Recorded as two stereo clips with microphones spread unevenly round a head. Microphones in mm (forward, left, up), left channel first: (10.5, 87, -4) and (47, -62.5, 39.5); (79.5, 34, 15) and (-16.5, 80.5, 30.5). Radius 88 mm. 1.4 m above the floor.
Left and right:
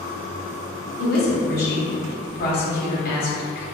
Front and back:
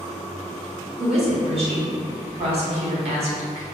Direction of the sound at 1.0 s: 130° left.